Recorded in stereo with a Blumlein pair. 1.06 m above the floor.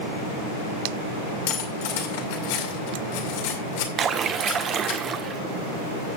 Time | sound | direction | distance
1.5 | cutlery clinking | 50° left | 2 m
4.0 | a splash | 25° right | 1.3 m